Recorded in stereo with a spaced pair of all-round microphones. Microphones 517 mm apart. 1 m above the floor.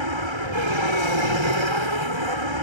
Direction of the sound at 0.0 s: 70° right (ahead or behind).